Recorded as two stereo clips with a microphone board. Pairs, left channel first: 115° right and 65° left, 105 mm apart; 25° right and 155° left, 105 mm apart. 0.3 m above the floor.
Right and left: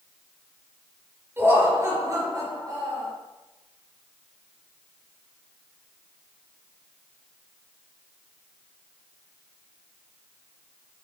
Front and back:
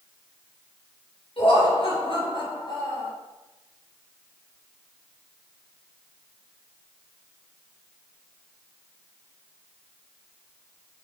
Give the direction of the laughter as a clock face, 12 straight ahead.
12 o'clock.